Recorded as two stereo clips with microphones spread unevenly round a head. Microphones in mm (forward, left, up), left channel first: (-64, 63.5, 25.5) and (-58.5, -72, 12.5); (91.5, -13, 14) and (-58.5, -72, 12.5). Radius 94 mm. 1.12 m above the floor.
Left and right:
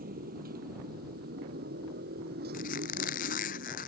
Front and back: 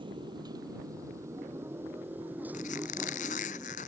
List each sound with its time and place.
0.0 s a motorcycle: 100° right; by 3.9 s 75° right
2.5 s a squeak: 70° left